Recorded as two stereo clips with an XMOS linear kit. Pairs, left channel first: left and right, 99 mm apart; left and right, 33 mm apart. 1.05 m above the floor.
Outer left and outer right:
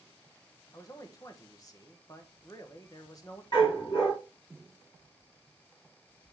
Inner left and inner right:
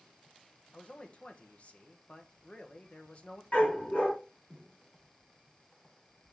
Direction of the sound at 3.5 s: 45° left (ahead or behind).